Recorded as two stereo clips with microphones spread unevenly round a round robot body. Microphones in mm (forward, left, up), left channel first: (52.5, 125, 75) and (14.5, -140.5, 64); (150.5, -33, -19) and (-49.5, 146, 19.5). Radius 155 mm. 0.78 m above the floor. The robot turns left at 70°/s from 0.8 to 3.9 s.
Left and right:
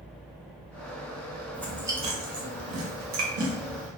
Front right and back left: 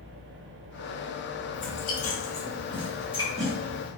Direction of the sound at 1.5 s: 5° left.